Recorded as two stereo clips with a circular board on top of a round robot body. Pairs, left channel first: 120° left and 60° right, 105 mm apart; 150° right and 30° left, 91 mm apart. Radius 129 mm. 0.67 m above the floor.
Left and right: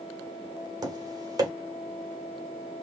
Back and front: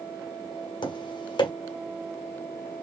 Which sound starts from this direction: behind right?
Tapping, at 0.8 s.